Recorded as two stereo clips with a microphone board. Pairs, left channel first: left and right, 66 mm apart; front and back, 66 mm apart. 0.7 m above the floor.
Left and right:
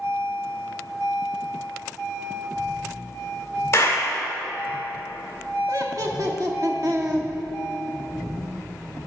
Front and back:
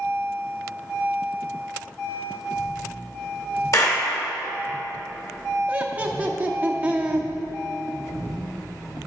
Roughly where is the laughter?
Behind right.